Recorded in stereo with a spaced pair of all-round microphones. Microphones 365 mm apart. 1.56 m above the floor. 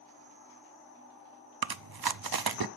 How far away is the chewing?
About 0.6 m.